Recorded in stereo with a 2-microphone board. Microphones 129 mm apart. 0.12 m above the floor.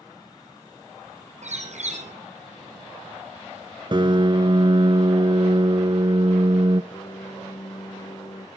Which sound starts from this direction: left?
A piano, at 6.9 s.